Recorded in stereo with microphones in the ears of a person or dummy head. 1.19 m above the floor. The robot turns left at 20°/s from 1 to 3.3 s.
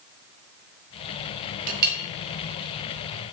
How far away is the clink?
About 0.5 m.